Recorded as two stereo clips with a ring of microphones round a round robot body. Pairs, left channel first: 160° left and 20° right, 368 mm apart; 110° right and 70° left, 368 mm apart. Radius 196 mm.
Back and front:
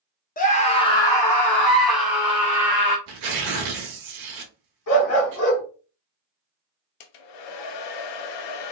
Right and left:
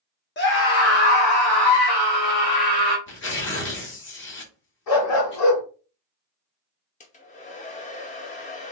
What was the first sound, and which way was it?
A scream, 150° right.